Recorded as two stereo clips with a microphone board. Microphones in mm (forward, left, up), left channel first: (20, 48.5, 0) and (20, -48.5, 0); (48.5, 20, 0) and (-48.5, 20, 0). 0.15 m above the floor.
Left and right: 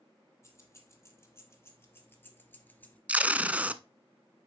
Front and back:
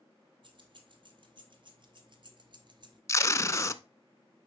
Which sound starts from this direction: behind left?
Keys jangling, at 0.4 s.